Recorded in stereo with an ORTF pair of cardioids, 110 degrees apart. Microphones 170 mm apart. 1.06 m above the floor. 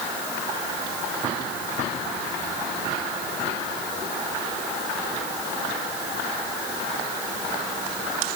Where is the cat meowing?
No cat meowing in this recording.